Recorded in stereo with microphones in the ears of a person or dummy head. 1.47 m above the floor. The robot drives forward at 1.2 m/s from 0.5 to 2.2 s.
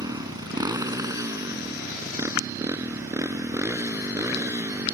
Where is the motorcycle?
25° right (ahead or behind); by 4.9 s 15° right (ahead or behind).